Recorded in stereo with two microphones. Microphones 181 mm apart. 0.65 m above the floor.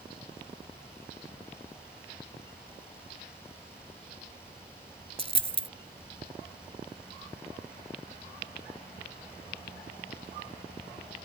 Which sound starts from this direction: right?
A dropped coin, at 5.2 s.